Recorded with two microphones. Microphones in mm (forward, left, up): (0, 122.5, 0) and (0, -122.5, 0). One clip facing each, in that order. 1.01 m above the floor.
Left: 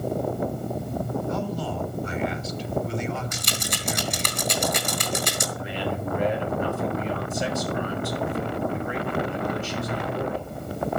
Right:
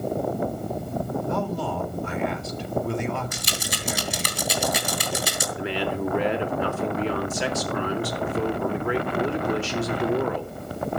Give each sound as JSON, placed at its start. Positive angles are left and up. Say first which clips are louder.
{"t": 1.3, "sound": "a man speaking", "louder": "right 1 dB", "side_deg": -55, "distance_m": 3.5}
{"t": 3.3, "sound": "a rattle", "louder": "even", "side_deg": -5, "distance_m": 3.0}
{"t": 5.6, "sound": "a man speaking", "louder": "right 7 dB", "side_deg": -70, "distance_m": 3.5}